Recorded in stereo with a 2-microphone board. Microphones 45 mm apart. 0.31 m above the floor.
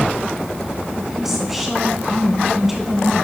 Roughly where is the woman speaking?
Centre.